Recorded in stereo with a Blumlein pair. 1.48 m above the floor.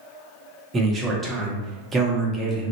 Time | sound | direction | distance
0.7 | a man speaking | 15° right | 0.8 m